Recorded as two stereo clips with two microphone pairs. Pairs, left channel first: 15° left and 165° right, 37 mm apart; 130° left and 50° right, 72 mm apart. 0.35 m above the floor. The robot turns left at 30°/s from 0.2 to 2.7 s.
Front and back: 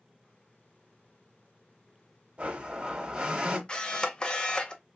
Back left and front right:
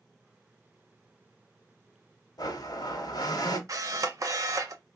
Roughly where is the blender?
Behind left.